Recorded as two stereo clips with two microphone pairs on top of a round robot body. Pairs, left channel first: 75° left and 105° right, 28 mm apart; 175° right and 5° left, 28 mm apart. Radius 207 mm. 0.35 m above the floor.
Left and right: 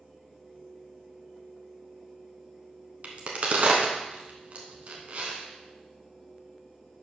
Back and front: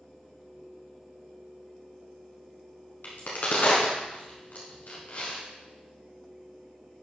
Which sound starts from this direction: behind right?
A crack, at 3.0 s.